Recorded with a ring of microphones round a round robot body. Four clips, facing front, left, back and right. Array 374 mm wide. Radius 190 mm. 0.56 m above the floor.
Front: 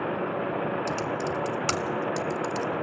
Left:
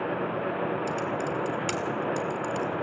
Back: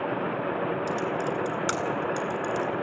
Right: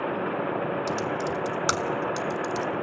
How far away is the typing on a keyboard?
About 0.9 m.